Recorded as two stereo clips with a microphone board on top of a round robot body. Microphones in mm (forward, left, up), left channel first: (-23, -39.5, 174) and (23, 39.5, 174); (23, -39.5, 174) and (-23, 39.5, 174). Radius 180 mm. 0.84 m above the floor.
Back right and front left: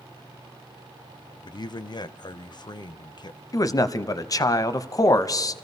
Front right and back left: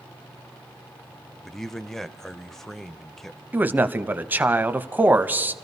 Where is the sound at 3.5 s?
170° right, 0.7 m.